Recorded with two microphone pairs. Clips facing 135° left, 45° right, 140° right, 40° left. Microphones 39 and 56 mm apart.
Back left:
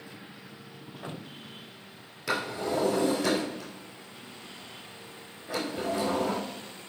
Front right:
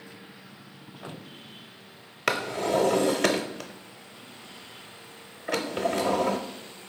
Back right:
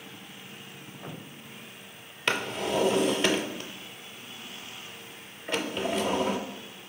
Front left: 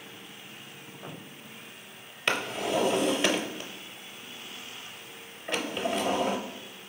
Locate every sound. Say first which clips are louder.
2.3 s a drawer: front right 4 dB, even; 50° right, 0.7 m